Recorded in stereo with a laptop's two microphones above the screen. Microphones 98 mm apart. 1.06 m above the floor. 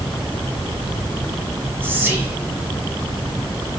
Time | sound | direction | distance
1.8 | whispering | 20° right (ahead or behind) | 0.7 m